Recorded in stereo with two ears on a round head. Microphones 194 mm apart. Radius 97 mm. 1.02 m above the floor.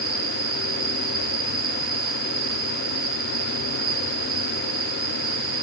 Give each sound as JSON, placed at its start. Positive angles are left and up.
{"t": 0.0, "sound": "an insect", "side_deg": -70, "distance_m": 3.5}